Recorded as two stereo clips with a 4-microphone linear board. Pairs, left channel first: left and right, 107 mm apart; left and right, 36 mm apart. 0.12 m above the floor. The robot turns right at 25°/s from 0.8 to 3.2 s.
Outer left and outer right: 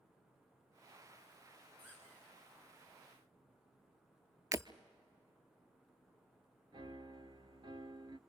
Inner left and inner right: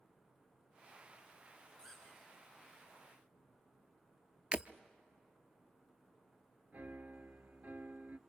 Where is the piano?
50° right (ahead or behind), 0.5 m.